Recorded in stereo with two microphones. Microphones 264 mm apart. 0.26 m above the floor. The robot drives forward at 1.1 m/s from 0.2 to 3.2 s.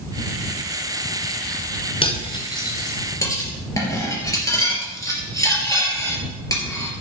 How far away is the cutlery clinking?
About 1.8 m.